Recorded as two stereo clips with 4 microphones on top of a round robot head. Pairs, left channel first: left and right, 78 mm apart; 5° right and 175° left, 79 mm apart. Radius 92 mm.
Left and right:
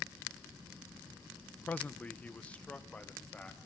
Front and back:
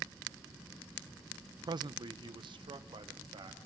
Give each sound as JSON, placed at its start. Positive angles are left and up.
{"t": 1.6, "sound": "a man speaking", "azimuth_deg": 160, "distance_m": 0.6}